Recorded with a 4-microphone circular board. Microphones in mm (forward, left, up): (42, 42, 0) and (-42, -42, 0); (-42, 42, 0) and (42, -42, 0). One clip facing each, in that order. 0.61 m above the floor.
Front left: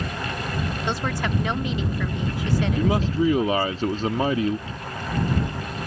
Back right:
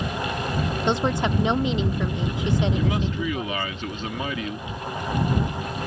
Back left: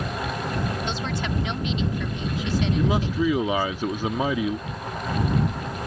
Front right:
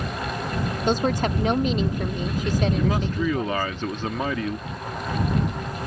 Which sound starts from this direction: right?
A woman speaking, at 0.9 s.